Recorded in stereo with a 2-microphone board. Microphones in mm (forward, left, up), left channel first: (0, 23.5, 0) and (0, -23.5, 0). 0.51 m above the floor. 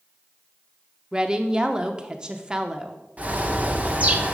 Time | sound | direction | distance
1.1 | a woman speaking | 20° right (ahead or behind) | 0.6 m
3.2 | a bird | 35° right (ahead or behind) | 1.0 m